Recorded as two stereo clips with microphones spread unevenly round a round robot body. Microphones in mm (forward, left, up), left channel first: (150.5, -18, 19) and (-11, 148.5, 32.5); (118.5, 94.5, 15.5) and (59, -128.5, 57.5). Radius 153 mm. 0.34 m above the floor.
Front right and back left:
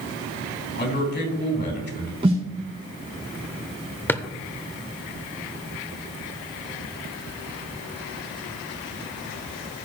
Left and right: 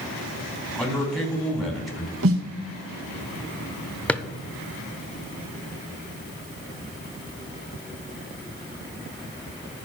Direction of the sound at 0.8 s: 10° right.